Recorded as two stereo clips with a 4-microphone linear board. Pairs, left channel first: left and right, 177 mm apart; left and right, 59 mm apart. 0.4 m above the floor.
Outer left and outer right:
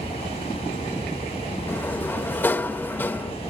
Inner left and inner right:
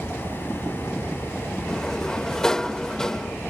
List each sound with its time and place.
1.7 s a sliding door: 10° left (ahead or behind), 0.8 m